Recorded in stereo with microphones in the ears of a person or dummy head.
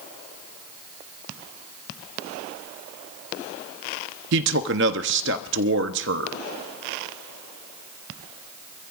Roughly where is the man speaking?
Right.